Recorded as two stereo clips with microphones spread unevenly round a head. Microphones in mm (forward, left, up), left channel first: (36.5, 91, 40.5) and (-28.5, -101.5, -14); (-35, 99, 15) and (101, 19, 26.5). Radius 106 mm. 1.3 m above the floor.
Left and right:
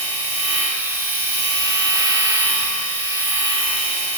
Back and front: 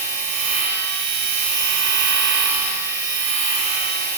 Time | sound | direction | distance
0.0 | a machine running | 30° right | 5 m